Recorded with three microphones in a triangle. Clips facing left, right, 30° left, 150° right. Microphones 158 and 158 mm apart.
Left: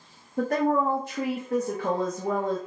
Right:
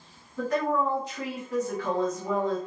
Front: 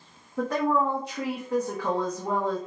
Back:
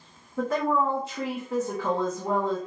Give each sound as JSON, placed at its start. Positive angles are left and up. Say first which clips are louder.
{"t": 0.4, "sound": "a woman speaking", "louder": "left 3 dB, even", "azimuth_deg": 125, "distance_m": 0.6}